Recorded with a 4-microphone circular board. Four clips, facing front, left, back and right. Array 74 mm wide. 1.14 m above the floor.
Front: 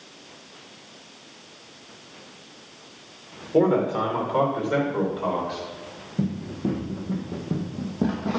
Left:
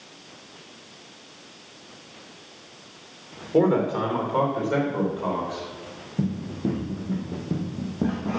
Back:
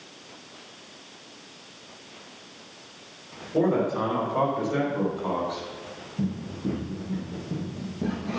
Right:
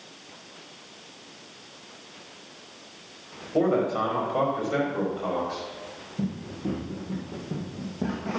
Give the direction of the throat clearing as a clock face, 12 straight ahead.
No throat clearing in this recording.